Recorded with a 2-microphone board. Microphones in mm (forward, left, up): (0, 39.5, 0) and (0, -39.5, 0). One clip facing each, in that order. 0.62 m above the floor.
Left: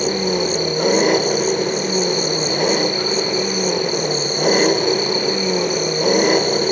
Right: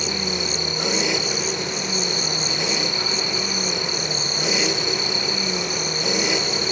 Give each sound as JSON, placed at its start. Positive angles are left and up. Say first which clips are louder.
{"t": 0.0, "sound": "an engine running", "louder": "left 8 dB", "side_deg": 50}